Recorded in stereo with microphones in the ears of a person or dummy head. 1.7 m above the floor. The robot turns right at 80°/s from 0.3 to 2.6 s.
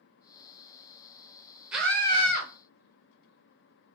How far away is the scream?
About 0.7 m.